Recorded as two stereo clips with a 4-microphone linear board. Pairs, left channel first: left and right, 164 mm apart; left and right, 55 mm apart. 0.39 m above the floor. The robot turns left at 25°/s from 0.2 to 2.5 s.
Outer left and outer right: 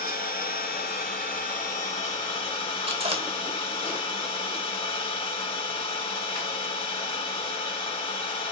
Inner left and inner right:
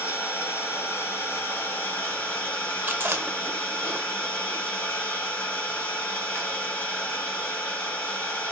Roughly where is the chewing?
Right.